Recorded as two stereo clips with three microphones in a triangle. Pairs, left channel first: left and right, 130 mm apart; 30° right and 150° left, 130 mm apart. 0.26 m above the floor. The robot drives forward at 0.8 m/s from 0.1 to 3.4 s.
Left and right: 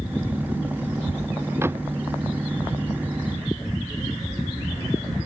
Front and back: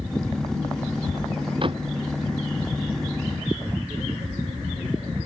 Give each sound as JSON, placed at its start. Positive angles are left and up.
{"t": 1.6, "sound": "a door slam", "azimuth_deg": -160}